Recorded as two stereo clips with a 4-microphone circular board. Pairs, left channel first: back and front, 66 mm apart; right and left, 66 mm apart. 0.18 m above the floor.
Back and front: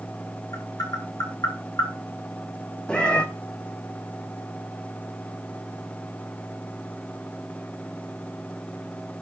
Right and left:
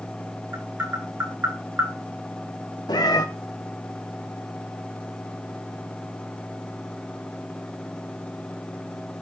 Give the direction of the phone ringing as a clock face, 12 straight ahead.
I don't hear a phone ringing.